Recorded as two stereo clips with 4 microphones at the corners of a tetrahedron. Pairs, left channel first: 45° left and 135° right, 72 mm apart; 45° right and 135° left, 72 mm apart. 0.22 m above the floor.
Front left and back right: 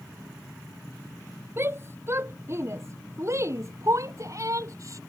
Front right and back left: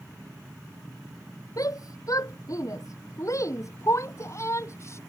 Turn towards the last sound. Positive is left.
turn(degrees=-95)